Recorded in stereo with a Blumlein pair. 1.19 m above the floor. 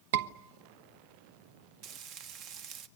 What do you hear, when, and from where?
0.1 s a scream: 60° right, 1.1 m
1.8 s frying: 35° right, 1.2 m